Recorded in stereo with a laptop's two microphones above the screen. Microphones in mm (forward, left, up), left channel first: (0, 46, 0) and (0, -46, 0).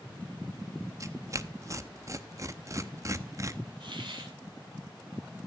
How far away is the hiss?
About 2.5 m.